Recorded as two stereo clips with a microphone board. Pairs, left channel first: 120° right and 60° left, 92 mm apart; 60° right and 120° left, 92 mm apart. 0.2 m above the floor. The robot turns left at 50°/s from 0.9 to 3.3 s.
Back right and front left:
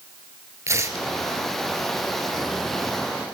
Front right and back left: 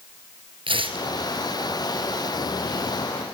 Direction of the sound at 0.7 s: 115° left.